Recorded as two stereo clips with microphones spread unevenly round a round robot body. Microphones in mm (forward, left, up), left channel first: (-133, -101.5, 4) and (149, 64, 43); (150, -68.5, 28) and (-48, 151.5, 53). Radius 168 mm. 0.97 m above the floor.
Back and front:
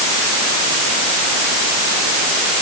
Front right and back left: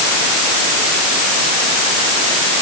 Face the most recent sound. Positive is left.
No sound to turn to.